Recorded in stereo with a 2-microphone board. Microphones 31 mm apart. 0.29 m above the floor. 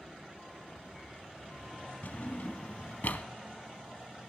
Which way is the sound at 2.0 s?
70° left (ahead or behind).